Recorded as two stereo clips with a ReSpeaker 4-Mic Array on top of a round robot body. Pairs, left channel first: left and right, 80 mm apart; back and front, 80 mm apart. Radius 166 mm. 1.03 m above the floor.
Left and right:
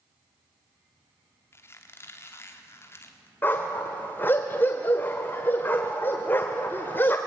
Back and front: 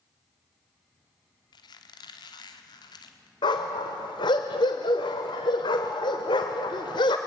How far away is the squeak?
About 1.1 m.